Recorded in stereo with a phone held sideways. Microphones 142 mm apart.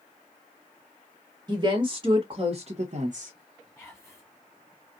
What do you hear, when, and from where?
1.5 s a woman speaking: 25° right (ahead or behind), 1.6 m; by 3.3 s 70° right (ahead or behind), 0.8 m
3.8 s whispering: 5° right (ahead or behind), 0.9 m